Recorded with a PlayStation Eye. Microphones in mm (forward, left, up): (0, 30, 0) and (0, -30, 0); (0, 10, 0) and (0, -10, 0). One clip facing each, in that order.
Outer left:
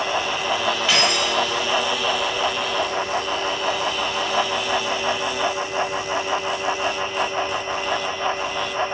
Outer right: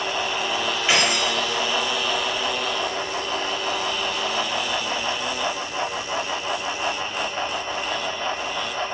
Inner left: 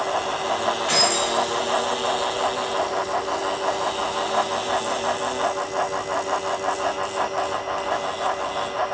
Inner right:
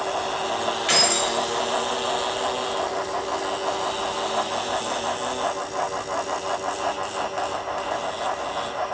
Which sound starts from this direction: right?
Keys jangling, at 0.9 s.